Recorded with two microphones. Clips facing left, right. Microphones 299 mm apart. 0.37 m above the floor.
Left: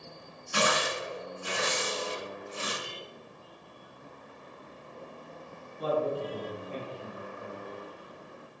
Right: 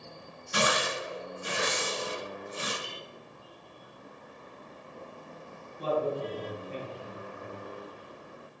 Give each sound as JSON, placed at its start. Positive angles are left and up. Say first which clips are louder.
{"t": 0.5, "sound": "tearing paper", "louder": "even", "side_deg": -30, "distance_m": 1.6}
{"t": 2.8, "sound": "a clink", "louder": "left 1 dB", "side_deg": 5, "distance_m": 0.9}
{"t": 5.8, "sound": "a man speaking", "louder": "even", "side_deg": -30, "distance_m": 1.8}